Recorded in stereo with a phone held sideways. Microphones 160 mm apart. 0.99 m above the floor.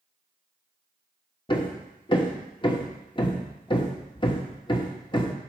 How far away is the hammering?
About 1.1 m.